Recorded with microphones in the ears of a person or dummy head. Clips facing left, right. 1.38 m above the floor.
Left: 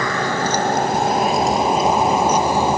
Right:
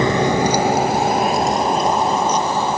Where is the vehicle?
20° right (ahead or behind); by 2.8 s 10° left (ahead or behind).